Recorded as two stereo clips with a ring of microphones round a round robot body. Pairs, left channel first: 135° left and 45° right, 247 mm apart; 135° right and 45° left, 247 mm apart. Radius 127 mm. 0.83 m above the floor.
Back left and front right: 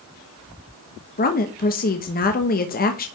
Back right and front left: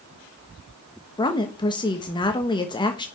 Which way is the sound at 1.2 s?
165° left.